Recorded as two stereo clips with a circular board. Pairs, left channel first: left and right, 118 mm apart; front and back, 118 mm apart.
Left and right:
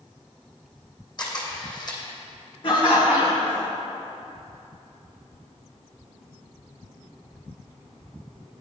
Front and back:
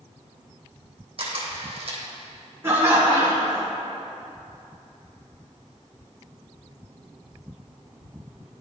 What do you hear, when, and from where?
1.2 s a camera shutter: 145° left, 2.5 m
2.6 s laughter: 115° left, 2 m